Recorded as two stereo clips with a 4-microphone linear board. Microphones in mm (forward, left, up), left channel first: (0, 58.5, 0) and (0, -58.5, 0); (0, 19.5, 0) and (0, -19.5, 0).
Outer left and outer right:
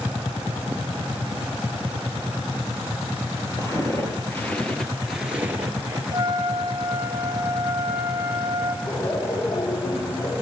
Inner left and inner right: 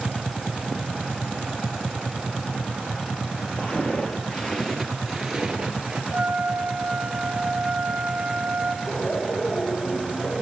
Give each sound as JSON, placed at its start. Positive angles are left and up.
{"t": 3.6, "sound": "footsteps", "side_deg": 35, "distance_m": 2.0}
{"t": 6.1, "sound": "a trumpet", "side_deg": -40, "distance_m": 0.9}
{"t": 8.8, "sound": "laughter", "side_deg": 70, "distance_m": 3.5}